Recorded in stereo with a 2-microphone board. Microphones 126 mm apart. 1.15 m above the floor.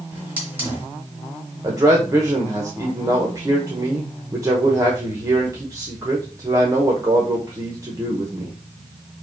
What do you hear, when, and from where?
0.1 s a hiss: 15° right (ahead or behind), 2 m
1.6 s a man speaking: 25° right (ahead or behind), 0.8 m